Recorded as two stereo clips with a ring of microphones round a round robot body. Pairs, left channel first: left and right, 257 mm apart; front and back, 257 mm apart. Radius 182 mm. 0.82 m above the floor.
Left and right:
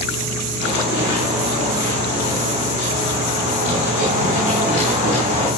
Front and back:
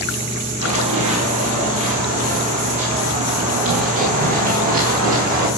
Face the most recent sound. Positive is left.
turn(degrees=150)